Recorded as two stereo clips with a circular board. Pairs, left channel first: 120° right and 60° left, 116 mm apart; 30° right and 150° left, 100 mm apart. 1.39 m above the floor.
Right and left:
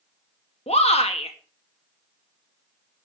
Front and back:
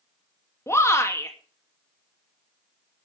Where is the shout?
95° right, 2.5 m.